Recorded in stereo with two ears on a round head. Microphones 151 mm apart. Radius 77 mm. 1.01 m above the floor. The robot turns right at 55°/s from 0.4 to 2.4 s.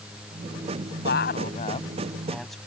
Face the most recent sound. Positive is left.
turn(degrees=180)